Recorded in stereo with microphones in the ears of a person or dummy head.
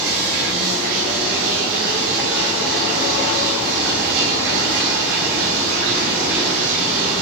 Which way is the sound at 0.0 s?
60° right (ahead or behind).